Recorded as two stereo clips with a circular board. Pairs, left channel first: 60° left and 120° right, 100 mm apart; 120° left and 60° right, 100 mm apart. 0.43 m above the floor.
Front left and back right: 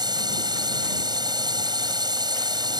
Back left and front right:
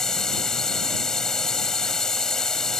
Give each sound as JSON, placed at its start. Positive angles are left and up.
{"t": 0.0, "sound": "a drone", "azimuth_deg": -155}